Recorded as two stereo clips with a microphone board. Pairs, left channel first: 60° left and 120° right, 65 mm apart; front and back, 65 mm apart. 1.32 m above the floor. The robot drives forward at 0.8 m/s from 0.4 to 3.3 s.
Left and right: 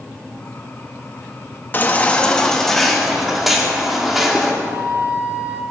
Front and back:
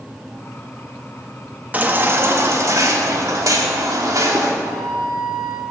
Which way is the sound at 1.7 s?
115° left.